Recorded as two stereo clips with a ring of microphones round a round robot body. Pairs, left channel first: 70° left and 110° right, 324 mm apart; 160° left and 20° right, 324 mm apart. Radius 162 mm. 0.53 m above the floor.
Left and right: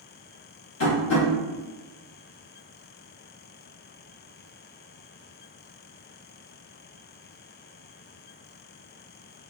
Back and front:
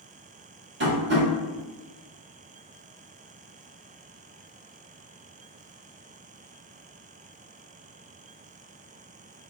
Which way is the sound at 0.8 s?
25° left.